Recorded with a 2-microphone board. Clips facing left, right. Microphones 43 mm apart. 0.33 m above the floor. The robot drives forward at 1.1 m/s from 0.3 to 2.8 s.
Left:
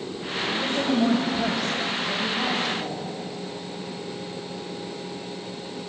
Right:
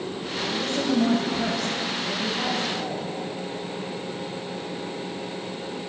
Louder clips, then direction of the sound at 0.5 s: Even; 15° left (ahead or behind).